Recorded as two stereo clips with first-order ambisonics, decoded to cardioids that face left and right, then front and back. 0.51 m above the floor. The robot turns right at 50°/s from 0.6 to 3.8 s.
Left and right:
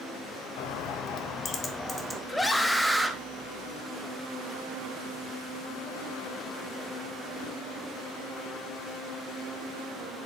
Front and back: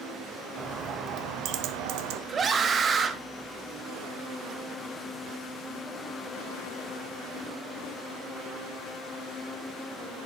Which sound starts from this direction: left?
A bird, at 0.6 s.